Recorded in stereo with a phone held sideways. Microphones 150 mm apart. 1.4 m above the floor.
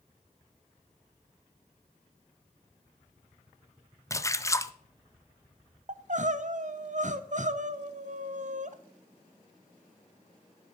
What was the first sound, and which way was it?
A splash, 20° left (ahead or behind).